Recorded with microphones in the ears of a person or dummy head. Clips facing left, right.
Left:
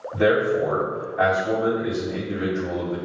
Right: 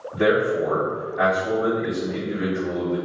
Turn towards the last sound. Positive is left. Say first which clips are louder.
# even
turn(degrees=0)  # may be behind; listen again after turning